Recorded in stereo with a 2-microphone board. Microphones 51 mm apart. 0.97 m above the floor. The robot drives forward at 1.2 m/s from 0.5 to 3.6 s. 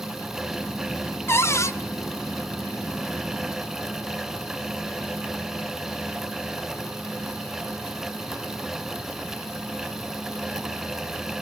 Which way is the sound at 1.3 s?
50° left (ahead or behind).